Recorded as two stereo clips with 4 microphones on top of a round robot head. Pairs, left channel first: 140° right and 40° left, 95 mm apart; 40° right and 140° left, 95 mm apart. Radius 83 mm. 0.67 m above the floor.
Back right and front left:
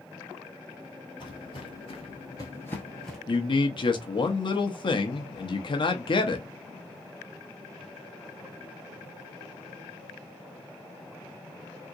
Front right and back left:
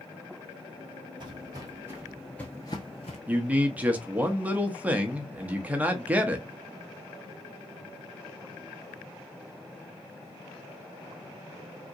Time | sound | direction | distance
1.2 | footsteps | straight behind | 1.0 m
3.3 | a man speaking | 150° right | 0.8 m